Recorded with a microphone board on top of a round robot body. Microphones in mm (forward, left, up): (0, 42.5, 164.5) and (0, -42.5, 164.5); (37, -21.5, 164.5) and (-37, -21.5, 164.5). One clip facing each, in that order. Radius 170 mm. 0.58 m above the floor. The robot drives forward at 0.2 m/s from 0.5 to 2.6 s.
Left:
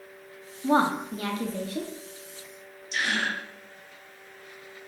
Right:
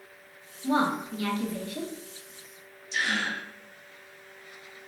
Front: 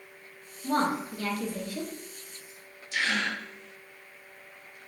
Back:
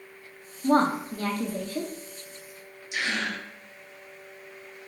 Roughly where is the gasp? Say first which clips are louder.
Left 1 dB, front 1 dB; left.